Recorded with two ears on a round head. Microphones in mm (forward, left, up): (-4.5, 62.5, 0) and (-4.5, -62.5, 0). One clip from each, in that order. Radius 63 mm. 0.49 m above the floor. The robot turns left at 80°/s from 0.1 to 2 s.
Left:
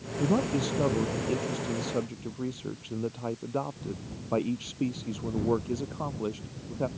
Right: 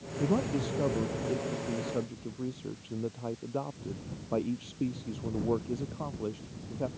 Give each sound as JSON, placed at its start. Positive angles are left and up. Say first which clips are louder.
{"t": 0.2, "sound": "a man speaking", "louder": "left 3 dB", "azimuth_deg": 175}